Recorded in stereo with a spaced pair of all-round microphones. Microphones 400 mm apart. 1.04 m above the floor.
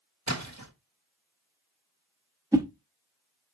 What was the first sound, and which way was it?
A splash, 45° right (ahead or behind).